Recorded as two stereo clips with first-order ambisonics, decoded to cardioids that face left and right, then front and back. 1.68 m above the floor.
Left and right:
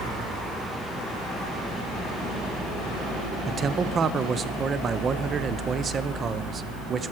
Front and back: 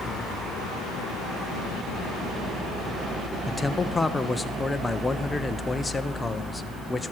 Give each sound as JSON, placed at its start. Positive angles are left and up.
{"t": 3.5, "sound": "a man speaking", "azimuth_deg": -70, "distance_m": 0.5}